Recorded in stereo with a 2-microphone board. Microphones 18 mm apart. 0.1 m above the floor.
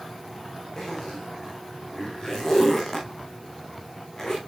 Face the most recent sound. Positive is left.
turn(degrees=30)  # may be behind; listen again after turning